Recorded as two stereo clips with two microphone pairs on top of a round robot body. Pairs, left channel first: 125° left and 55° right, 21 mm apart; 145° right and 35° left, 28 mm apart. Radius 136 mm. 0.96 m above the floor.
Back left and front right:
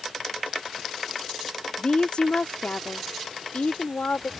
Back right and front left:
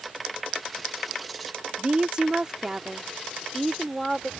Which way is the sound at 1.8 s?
80° left.